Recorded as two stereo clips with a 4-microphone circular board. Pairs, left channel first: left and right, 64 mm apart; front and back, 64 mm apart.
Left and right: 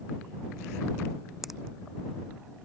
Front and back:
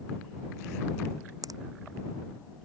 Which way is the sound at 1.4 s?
175° right.